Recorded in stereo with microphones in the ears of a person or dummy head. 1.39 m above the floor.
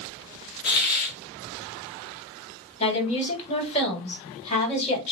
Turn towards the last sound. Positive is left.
turn(degrees=35)  # may be behind; listen again after turning